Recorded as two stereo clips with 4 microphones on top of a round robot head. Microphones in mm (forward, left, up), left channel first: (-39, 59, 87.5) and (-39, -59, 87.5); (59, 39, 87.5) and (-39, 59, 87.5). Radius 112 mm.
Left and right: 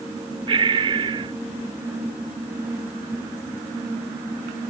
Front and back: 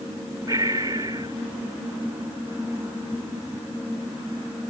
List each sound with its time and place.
0.5 s breathing: 125° right